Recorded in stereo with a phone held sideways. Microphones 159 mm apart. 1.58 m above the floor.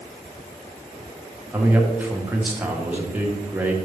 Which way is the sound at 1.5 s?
10° right (ahead or behind).